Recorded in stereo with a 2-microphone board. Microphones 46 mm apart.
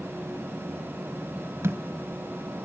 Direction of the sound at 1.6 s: 70° right (ahead or behind).